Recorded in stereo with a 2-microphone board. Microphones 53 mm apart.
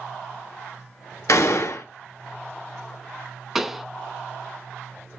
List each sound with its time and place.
1.3 s a gunshot: 70° left (ahead or behind), 0.6 m
3.5 s a pop: 5° right (ahead or behind), 0.5 m